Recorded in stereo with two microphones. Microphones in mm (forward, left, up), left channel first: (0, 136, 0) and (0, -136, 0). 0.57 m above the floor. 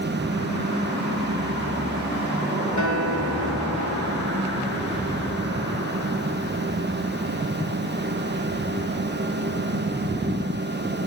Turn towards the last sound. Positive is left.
turn(degrees=80)